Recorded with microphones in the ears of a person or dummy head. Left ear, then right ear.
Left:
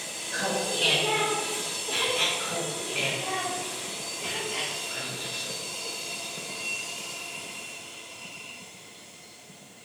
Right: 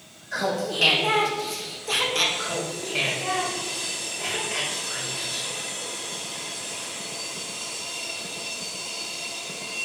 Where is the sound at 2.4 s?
65° right (ahead or behind), 2.5 m.